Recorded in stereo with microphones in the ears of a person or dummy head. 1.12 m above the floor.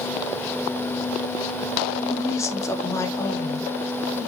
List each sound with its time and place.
2.1 s a woman speaking: 20° left (ahead or behind), 2 m